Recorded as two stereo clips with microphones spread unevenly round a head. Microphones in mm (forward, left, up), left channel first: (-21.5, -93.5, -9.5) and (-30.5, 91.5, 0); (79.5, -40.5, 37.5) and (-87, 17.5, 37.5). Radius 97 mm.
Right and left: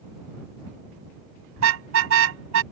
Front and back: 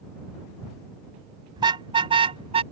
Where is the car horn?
95° left; by 2.6 s 100° left.